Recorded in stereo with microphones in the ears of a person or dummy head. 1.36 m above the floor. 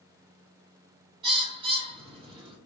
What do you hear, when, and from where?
1.2 s a bird: 30° right (ahead or behind), 1.0 m